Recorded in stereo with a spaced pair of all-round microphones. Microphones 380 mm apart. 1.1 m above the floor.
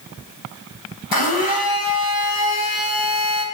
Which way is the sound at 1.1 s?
65° left (ahead or behind).